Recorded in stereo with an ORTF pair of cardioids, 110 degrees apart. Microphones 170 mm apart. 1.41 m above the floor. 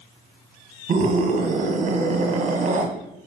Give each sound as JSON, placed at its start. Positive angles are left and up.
{"t": 0.9, "sound": "a scream", "azimuth_deg": -55, "distance_m": 1.1}